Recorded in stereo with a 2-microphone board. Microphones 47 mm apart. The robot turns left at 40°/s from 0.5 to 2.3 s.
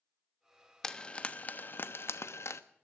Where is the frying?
10° left (ahead or behind), 1.0 m; by 2.6 s 65° left (ahead or behind), 1.0 m.